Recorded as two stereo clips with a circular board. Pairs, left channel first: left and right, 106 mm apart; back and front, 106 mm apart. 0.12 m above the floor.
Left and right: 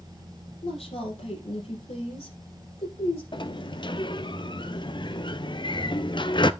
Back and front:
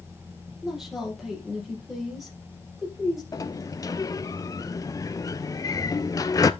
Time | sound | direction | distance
0.6 | a woman speaking | 85° left | 4.5 m
3.3 | a sliding door | 125° left | 0.6 m